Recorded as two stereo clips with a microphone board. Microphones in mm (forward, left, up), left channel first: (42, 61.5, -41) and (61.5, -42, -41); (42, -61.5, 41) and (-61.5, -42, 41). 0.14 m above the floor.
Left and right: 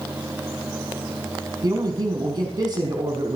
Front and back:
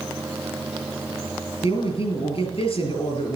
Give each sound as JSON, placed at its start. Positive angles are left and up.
{"t": 1.6, "sound": "a man speaking", "azimuth_deg": -30, "distance_m": 3.5}